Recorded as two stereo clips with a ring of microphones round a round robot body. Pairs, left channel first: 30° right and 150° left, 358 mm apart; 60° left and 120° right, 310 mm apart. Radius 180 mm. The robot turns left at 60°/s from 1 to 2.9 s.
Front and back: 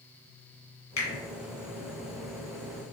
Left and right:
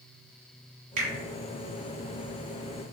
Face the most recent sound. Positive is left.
turn(degrees=165)